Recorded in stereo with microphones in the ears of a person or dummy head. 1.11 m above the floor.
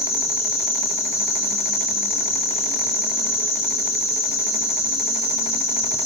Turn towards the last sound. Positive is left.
turn(degrees=15)  # may be behind; listen again after turning